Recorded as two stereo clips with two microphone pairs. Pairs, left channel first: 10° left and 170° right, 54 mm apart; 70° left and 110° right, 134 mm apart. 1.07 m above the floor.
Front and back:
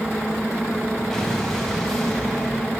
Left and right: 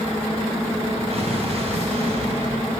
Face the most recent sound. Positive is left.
turn(degrees=-70)